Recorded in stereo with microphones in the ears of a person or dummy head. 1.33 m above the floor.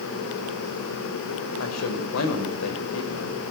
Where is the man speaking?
80° left, 5 m.